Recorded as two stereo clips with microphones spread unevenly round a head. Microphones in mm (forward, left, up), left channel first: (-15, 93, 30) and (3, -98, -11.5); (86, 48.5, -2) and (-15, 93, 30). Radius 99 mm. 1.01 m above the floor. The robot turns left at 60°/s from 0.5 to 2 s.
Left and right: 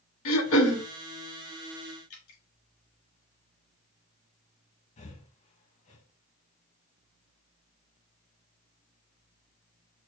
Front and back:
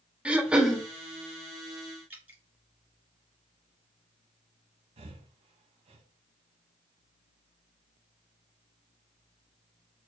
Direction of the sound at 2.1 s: 80° left.